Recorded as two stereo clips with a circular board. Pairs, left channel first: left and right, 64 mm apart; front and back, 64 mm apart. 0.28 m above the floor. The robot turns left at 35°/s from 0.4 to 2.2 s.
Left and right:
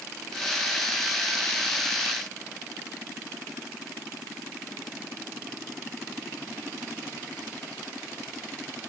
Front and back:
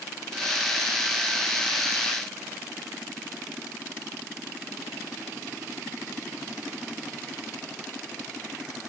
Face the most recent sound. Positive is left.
No sound to turn to.